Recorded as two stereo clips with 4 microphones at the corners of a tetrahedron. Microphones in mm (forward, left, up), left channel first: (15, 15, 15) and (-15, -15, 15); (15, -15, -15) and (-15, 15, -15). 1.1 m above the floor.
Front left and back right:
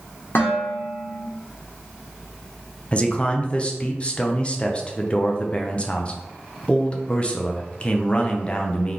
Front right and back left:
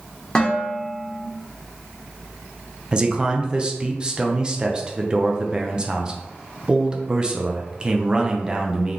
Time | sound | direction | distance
0.3 | dishes clattering | 30° left | 1.6 m
2.9 | a man speaking | 85° left | 0.7 m